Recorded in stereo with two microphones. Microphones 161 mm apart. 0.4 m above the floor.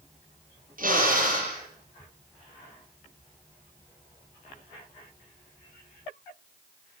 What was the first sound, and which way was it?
A drill, 60° right (ahead or behind).